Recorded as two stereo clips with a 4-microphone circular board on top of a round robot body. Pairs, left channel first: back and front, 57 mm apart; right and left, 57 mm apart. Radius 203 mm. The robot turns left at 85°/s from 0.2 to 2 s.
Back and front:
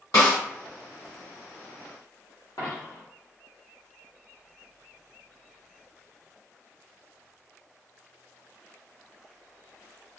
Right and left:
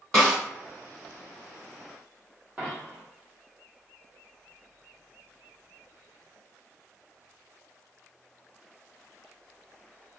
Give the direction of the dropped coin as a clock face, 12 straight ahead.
7 o'clock.